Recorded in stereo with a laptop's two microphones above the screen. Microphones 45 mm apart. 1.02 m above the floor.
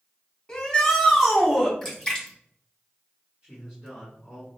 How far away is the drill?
No drill in this recording.